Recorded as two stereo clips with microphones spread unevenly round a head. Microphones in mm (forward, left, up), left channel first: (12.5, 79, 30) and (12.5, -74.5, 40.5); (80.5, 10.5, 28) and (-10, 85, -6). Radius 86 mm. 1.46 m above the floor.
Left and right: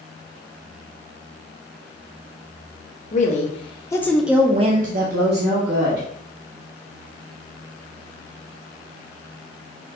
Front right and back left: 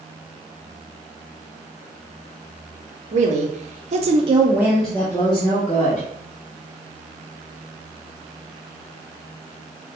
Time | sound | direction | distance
3.1 | a woman speaking | 135° left | 0.9 m